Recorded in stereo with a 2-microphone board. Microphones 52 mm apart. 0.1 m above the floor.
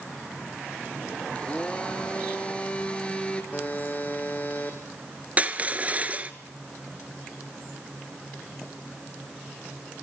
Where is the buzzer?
30° left (ahead or behind), 2.5 m.